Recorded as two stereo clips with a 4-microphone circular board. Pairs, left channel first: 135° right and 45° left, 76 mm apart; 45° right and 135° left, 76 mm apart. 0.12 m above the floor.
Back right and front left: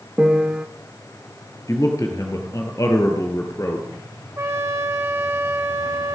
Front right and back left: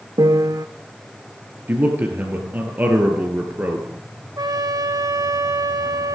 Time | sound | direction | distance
0.2 | a piano | 125° left | 0.5 m
1.7 | a man speaking | 160° right | 2 m
4.4 | a trumpet | 100° left | 1.7 m